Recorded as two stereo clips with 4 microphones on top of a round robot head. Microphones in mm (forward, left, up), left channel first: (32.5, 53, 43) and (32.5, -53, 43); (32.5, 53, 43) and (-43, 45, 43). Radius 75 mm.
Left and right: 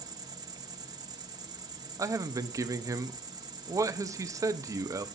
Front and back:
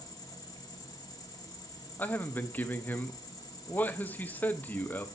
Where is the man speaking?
50° right, 0.7 m.